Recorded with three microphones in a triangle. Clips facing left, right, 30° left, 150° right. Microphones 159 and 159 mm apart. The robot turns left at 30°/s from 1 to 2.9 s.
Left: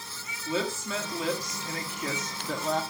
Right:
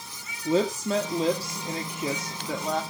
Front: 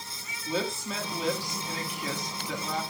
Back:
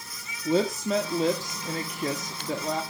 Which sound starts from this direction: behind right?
A woman speaking, at 0.5 s.